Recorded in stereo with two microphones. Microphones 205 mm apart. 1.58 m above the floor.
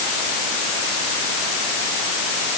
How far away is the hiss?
I don't hear a hiss.